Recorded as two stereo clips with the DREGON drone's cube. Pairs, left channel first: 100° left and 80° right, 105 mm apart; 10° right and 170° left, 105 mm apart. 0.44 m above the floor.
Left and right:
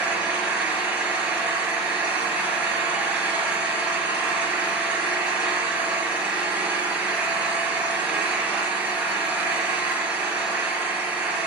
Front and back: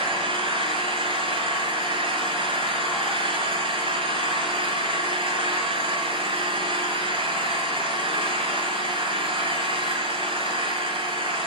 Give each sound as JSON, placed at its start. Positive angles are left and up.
{"t": 0.0, "sound": "an engine running", "azimuth_deg": -160, "distance_m": 4.0}